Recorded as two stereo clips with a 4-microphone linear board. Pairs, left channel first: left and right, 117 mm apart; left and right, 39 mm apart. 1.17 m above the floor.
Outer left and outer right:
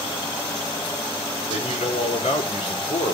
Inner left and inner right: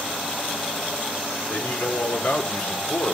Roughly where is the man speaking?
Left.